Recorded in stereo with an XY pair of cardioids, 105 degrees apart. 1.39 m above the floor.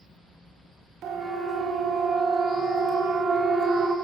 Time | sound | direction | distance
1.0 | a siren | 65° right | 3 m